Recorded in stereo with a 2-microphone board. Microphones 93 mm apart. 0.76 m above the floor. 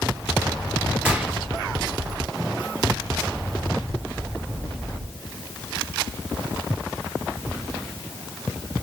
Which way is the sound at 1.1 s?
15° right (ahead or behind).